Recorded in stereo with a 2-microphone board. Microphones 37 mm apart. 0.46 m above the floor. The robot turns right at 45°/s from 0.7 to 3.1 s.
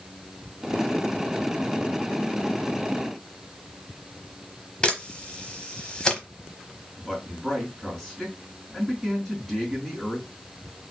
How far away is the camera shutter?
About 1.1 m.